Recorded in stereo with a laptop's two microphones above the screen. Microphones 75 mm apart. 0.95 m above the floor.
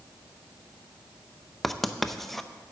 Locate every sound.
1.6 s writing: 5° left (ahead or behind), 0.7 m